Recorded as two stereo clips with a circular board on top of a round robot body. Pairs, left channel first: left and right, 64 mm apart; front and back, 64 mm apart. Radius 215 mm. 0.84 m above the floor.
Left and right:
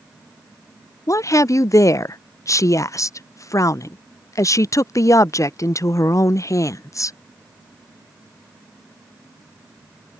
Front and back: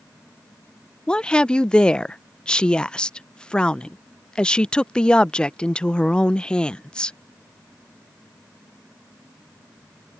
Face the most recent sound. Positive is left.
turn(degrees=75)